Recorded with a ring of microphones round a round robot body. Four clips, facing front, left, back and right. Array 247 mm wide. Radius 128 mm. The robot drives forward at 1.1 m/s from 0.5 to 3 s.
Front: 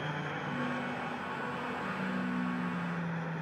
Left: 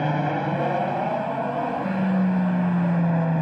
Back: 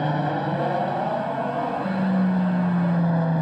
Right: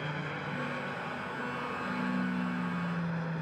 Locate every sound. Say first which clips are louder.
0.0 s an aircraft: left 14 dB, back 14 dB; 130° left; by 3.4 s 135° left